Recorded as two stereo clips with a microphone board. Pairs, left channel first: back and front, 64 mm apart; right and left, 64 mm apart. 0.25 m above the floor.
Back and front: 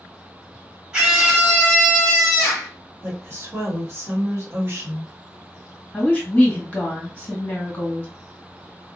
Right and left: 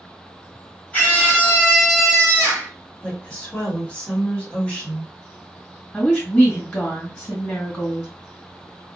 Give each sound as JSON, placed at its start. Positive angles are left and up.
{"t": 0.9, "sound": "a scream", "azimuth_deg": -65, "distance_m": 1.6}
{"t": 3.0, "sound": "a woman speaking", "azimuth_deg": -25, "distance_m": 1.4}
{"t": 5.9, "sound": "a woman speaking", "azimuth_deg": -135, "distance_m": 1.5}